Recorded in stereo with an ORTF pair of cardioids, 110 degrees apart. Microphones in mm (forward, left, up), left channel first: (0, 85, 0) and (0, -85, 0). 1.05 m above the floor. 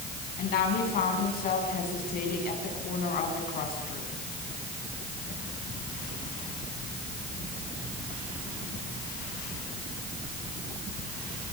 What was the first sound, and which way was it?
A woman speaking, 60° left.